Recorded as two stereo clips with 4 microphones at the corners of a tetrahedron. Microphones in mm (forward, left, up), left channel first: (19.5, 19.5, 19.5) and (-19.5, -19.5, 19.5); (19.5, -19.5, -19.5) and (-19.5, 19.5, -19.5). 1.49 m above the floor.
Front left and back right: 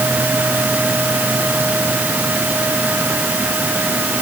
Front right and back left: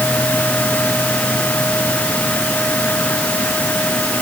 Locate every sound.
Only background noise.